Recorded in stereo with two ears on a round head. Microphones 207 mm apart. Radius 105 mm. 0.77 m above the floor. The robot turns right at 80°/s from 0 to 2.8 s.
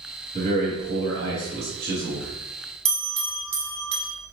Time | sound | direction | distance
0.3 | a man speaking | 145° right | 1.9 m
2.9 | a bell | 25° right (ahead or behind) | 0.7 m